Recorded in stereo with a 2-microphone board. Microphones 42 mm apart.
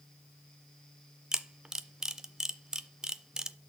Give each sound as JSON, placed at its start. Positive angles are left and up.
{"t": 1.3, "sound": "a camera shutter", "side_deg": -15, "distance_m": 0.5}